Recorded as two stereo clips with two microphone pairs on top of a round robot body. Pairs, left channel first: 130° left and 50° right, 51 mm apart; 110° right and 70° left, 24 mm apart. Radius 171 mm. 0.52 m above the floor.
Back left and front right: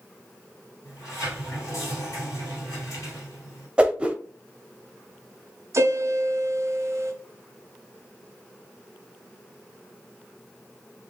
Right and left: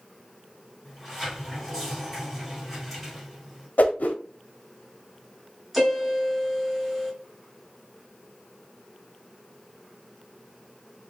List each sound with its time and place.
0.8 s a sliding door: 160° left, 2.5 m
3.8 s a whoosh: 115° right, 0.7 m
5.7 s a piano: 15° right, 0.8 m